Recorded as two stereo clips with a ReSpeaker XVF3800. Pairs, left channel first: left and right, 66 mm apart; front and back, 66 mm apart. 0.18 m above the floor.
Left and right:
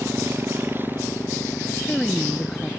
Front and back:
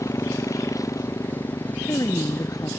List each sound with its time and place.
0.0 s a motorcycle: 35° right; by 2.8 s 20° right
1.7 s a woman speaking: 5° left